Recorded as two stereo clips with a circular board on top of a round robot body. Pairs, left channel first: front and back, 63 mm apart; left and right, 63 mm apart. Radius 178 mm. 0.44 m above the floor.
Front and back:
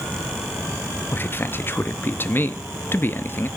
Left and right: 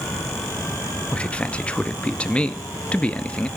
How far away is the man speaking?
About 1.0 m.